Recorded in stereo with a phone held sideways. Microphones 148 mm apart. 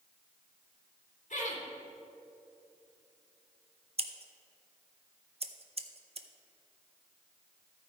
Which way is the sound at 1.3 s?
60° left (ahead or behind).